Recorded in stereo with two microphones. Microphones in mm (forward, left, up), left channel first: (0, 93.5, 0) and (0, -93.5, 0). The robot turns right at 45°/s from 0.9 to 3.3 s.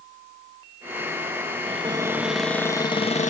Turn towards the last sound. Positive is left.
turn(degrees=40)